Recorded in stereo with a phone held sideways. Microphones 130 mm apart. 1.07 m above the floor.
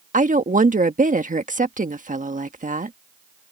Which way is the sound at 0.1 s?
85° right.